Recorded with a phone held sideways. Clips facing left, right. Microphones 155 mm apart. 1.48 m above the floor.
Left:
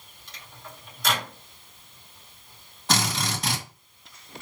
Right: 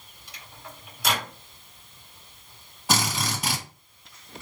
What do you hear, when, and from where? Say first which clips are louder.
0.3 s a microwave: even; 10° right (ahead or behind), 2.0 m
2.9 s a drill: even; 10° right (ahead or behind), 2 m